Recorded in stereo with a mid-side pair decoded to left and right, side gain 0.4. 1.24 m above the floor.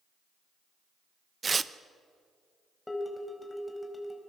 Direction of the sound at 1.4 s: 35° right.